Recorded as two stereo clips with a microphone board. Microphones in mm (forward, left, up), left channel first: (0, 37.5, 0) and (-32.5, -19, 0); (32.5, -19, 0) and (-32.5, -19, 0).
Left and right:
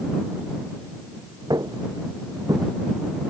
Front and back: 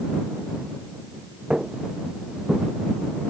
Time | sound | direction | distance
1.5 | footsteps | 105° right | ?